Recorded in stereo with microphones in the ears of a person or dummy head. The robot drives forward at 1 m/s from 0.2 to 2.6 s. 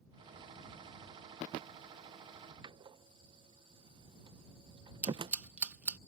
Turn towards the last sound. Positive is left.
turn(degrees=-10)  # may be behind; listen again after turning